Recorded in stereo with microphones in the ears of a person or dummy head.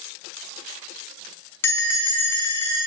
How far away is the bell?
About 0.9 m.